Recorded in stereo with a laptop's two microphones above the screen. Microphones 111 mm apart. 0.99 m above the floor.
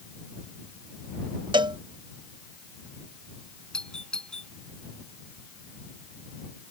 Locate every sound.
1.5 s a cowbell: 45° right (ahead or behind)
3.7 s a doorbell: 10° left (ahead or behind)